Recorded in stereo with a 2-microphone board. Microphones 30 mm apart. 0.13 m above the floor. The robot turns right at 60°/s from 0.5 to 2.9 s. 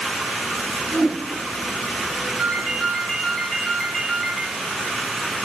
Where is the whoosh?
10° right (ahead or behind), 1.6 m; by 1.2 s centre (ahead or behind), 1.6 m.